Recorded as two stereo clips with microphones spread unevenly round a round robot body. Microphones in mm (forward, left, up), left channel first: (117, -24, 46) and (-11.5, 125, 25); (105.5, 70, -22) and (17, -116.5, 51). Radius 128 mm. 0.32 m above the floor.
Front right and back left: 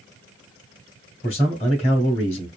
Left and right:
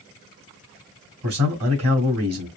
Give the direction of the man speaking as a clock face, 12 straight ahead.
4 o'clock.